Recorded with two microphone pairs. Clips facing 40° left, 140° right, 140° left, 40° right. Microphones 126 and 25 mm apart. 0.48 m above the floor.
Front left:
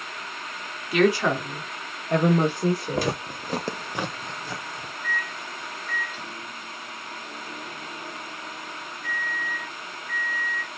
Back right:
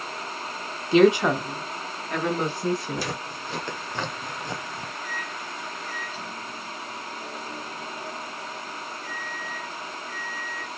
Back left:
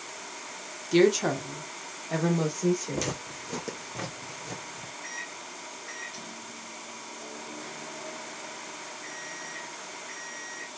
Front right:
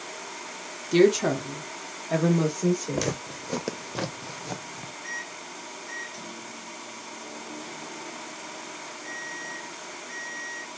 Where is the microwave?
Straight behind, 1.8 m.